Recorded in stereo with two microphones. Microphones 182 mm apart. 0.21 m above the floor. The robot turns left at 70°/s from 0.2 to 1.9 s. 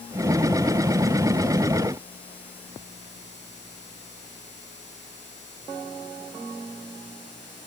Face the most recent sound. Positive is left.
No sound to turn to.